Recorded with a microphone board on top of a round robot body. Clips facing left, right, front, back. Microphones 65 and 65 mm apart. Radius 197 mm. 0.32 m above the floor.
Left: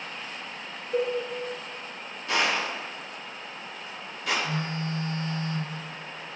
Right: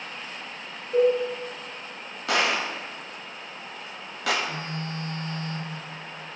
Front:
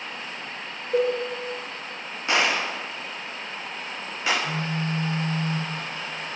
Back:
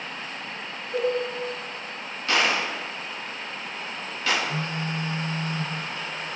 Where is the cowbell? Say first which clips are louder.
Right 7 dB, front 3 dB; straight ahead, 1.8 m.